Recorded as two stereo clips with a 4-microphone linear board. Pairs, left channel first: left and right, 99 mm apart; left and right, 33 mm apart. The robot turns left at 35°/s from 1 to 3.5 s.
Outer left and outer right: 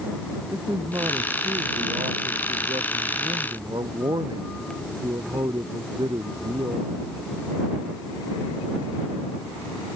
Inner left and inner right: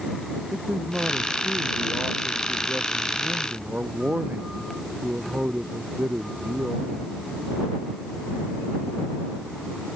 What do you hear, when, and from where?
0.5 s a man speaking: 40° right; by 6.9 s 125° right